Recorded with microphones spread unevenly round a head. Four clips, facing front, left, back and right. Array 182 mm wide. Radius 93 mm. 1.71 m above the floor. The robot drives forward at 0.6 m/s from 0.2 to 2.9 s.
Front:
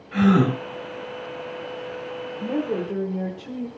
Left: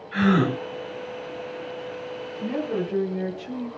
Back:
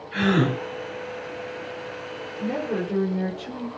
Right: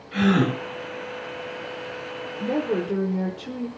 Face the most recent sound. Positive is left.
turn(degrees=-85)